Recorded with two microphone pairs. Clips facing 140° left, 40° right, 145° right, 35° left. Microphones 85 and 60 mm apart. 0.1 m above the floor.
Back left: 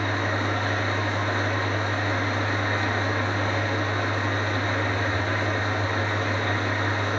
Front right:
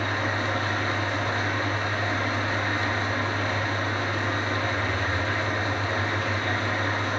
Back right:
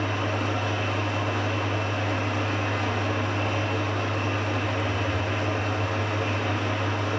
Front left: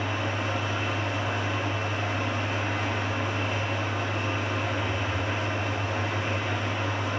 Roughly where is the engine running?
Behind.